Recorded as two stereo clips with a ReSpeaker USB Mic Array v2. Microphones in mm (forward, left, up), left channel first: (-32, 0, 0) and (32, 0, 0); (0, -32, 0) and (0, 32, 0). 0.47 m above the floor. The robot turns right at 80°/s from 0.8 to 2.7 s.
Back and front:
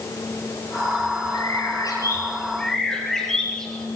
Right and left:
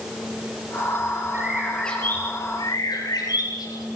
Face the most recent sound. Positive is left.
turn(degrees=-95)